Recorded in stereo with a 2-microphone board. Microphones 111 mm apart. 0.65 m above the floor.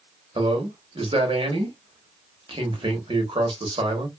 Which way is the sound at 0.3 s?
55° right (ahead or behind).